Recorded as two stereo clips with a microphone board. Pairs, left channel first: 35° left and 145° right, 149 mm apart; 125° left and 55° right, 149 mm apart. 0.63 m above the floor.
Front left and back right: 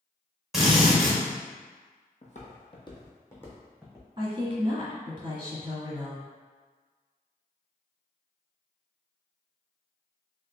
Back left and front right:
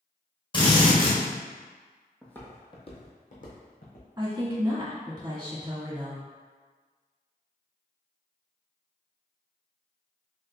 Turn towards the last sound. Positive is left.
turn(degrees=-105)